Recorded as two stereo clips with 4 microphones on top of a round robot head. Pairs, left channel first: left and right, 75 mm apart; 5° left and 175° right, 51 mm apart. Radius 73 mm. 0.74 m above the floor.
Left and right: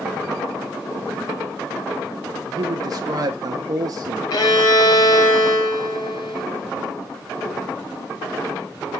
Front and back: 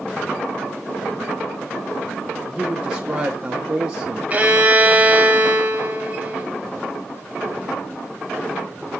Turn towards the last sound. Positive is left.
turn(degrees=125)